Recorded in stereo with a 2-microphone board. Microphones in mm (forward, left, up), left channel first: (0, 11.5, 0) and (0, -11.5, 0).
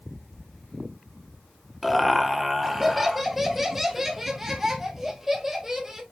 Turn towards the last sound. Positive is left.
turn(degrees=-15)  # may be behind; listen again after turning